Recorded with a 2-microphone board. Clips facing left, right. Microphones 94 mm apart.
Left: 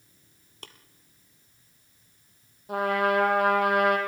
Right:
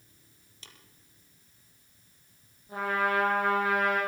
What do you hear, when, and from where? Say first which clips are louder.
0.6 s tapping: left 7 dB; 60° left (ahead or behind), 2.0 m
2.7 s a trumpet: left 4 dB; 80° left, 4.5 m